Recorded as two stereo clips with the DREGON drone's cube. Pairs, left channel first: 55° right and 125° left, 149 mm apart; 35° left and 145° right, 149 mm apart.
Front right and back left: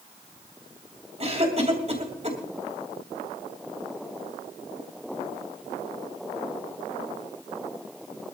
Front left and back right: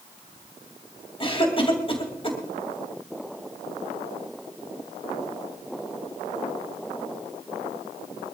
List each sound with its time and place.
1.2 s a cough: 85° left, 3 m